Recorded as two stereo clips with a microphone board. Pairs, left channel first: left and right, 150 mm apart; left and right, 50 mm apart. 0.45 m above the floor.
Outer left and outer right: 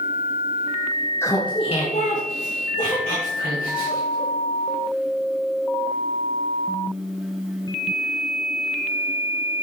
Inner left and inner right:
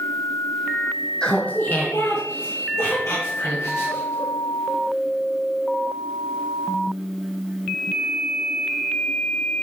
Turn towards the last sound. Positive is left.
turn(degrees=65)  # may be behind; listen again after turning